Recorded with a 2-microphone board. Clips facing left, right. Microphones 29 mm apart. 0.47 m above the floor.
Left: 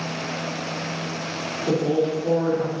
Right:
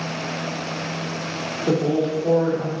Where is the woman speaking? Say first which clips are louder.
Right 1 dB; 40° right (ahead or behind), 1.7 m.